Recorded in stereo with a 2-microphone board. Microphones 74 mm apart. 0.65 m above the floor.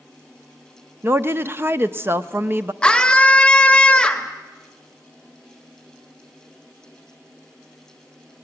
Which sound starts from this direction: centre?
A scream, at 2.8 s.